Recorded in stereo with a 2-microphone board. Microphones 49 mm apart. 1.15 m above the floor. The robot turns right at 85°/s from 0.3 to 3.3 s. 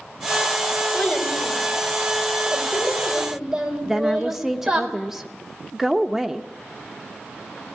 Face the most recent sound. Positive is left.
turn(degrees=-5)  # may be behind; listen again after turning